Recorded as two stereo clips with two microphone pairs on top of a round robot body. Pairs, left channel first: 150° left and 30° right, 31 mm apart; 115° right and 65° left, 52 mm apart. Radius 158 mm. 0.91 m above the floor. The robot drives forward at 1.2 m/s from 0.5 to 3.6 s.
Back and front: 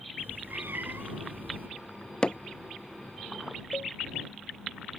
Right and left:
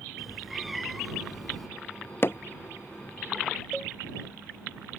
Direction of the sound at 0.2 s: 20° right.